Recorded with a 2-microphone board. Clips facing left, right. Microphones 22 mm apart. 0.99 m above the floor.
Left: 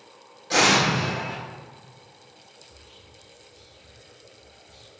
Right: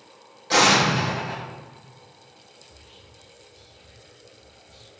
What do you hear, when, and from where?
0.5 s an explosion: 20° right (ahead or behind), 1.4 m
2.6 s whispering: centre (ahead or behind), 0.6 m